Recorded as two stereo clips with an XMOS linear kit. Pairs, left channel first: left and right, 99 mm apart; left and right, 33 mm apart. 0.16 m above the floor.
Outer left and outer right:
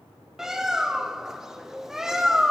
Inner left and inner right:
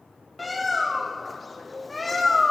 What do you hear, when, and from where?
0.4 s a bird: 5° right (ahead or behind), 1.5 m